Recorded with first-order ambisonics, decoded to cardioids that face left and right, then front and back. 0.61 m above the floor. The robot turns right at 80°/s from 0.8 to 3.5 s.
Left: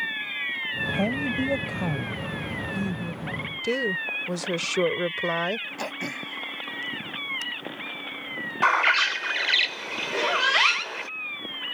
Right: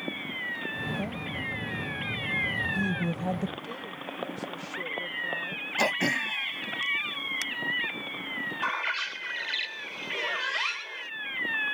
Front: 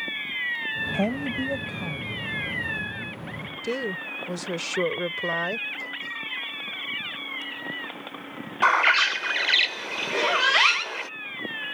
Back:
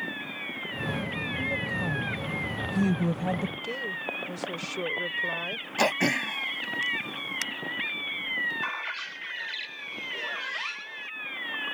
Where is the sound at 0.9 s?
25° left; by 3.5 s 130° right.